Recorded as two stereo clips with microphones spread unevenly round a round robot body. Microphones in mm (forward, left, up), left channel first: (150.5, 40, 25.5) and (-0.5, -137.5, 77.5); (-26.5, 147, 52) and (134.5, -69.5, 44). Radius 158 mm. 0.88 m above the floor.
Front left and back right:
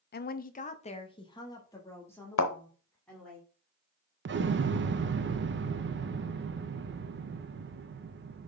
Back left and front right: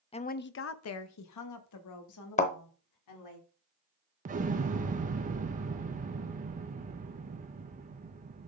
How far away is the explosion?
About 0.7 m.